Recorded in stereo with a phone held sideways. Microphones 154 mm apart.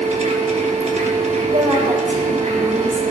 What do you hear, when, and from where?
0.0 s a machine running: 45° right (ahead or behind), 1.2 m
1.5 s a woman speaking: 55° right (ahead or behind), 3.5 m